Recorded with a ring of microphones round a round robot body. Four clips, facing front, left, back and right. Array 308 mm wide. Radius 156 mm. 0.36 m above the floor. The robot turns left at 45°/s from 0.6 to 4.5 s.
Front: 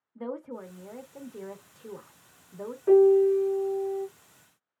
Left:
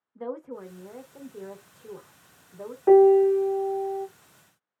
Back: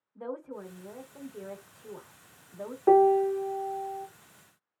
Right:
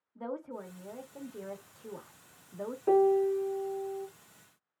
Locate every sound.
0.1 s a woman speaking: 50° left, 1.1 m; by 2.8 s 50° right, 1.1 m
2.9 s a piano: 135° left, 0.6 m; by 4.1 s 80° left, 0.6 m